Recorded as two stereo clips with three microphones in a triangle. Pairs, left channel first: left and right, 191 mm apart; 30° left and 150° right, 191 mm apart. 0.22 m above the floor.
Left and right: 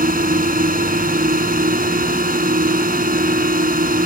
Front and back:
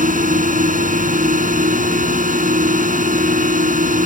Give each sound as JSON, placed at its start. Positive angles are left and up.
{"t": 0.0, "sound": "a drone", "azimuth_deg": -115}